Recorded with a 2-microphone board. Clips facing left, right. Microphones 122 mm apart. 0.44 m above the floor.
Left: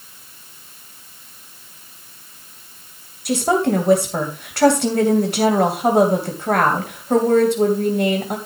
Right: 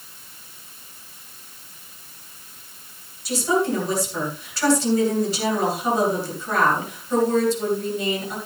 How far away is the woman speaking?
About 3 m.